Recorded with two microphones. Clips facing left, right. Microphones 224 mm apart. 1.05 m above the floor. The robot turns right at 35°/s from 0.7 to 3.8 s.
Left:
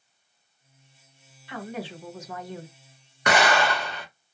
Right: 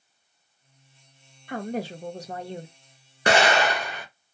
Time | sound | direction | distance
1.5 | a woman speaking | 75° right | 0.6 m
3.3 | an explosion | 30° right (ahead or behind) | 1.0 m